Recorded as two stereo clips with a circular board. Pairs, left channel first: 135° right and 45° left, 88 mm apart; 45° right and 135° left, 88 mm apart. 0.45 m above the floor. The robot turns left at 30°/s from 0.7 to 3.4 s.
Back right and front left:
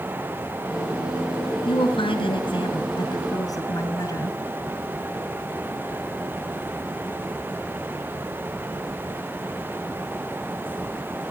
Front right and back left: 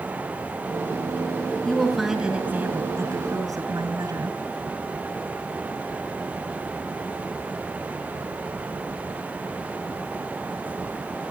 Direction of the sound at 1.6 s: 125° right.